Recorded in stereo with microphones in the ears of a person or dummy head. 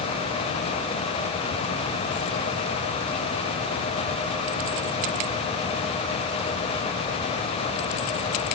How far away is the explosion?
I don't hear an explosion.